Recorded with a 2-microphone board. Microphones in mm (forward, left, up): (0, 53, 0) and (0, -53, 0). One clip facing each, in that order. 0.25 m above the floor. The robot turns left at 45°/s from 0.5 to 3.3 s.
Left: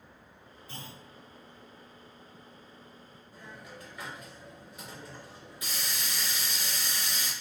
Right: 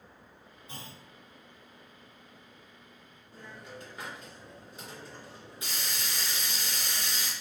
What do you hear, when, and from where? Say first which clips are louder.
0.7 s a clunk: left 1 dB; 20° right (ahead or behind), 1.5 m; by 1.0 s 25° right (ahead or behind), 1.5 m
3.3 s a hiss: right 2 dB; 30° right (ahead or behind), 2.5 m